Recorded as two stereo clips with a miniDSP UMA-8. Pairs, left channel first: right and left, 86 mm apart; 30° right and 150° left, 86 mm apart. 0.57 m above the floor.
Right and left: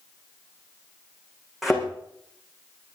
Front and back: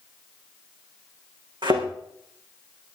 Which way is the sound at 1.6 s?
175° left.